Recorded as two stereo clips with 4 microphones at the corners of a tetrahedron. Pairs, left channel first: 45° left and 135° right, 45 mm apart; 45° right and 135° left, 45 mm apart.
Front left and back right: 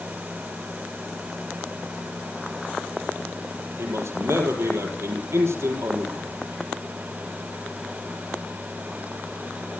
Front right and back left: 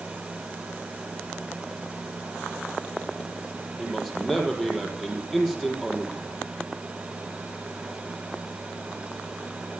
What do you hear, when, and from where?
3.8 s a man speaking: 125° right, 6 m